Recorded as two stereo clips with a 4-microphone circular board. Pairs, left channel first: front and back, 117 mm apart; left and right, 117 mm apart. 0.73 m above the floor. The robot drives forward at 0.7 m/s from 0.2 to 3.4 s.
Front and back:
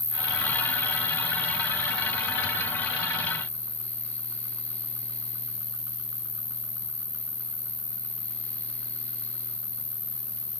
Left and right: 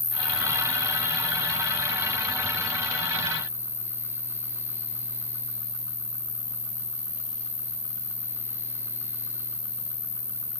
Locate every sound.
0.0 s an insect: 120° right, 1.5 m; by 10.6 s 155° right, 3.5 m